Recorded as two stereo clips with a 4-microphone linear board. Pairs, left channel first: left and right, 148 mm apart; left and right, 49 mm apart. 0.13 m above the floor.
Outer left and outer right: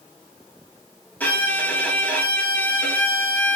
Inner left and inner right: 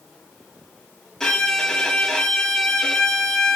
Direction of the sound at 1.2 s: 10° left (ahead or behind).